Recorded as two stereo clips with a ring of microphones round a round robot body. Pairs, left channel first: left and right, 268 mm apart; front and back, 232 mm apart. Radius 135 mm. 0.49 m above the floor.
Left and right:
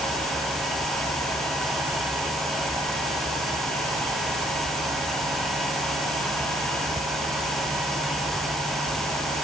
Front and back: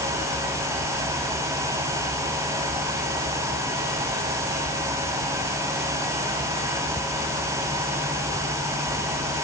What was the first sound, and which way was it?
Only background noise.